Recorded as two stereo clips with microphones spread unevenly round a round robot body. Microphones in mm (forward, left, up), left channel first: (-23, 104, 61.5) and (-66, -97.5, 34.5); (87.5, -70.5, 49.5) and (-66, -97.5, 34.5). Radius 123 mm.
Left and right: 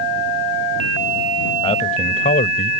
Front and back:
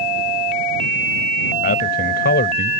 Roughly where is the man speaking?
Ahead.